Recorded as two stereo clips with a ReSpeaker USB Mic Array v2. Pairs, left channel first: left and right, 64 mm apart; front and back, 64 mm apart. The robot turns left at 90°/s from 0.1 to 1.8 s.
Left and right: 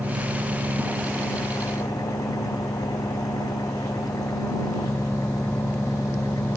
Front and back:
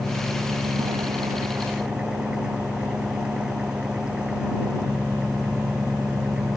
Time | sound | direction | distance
0.0 | an engine running | 105° right | ?